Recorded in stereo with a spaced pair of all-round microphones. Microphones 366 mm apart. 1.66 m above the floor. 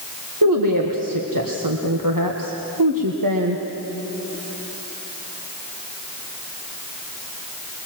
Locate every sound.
0.4 s a woman speaking: 60° right (ahead or behind), 1.6 m